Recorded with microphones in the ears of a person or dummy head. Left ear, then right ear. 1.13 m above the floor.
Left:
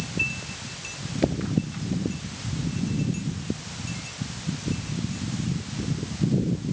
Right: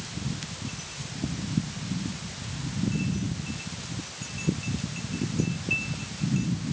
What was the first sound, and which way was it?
Only background noise.